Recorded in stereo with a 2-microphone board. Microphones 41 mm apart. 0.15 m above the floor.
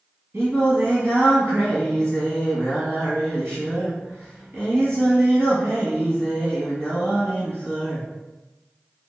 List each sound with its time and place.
0.3 s singing: 65° right (ahead or behind), 1.6 m